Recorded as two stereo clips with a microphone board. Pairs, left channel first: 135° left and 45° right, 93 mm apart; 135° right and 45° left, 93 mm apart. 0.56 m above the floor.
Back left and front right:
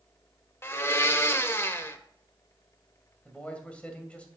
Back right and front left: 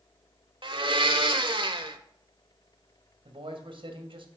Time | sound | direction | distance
0.6 | a blender | 75° left | 0.9 m
3.2 | a man speaking | 60° left | 2.5 m